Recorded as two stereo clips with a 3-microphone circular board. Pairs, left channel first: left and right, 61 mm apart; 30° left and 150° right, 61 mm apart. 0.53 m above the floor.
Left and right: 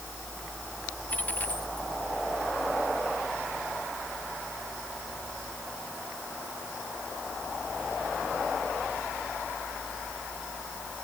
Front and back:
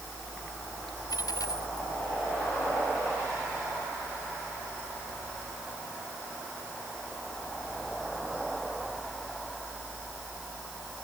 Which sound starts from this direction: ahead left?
A dropped coin, at 1.1 s.